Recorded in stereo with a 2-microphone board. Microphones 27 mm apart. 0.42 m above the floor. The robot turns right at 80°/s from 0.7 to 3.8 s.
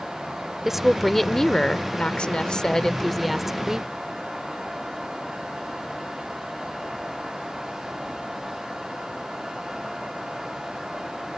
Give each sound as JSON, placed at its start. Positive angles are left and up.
{"t": 0.7, "sound": "a woman speaking", "azimuth_deg": -20}